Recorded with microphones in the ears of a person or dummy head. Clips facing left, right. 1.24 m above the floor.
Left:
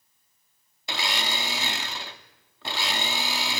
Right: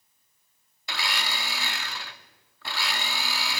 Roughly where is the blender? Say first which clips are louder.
Left 3 dB; left.